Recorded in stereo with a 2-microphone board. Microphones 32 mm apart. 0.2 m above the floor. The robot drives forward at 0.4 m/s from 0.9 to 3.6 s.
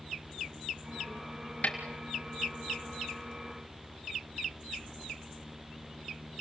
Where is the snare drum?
45° left (ahead or behind), 3.5 m.